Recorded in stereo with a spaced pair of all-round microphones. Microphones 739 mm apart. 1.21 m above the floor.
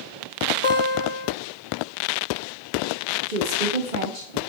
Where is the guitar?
40° left (ahead or behind), 1.0 m.